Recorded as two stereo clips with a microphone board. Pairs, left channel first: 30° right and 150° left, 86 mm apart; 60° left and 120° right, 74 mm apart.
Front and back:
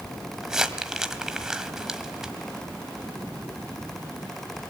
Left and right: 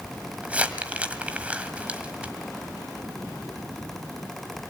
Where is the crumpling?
140° right, 1.6 m.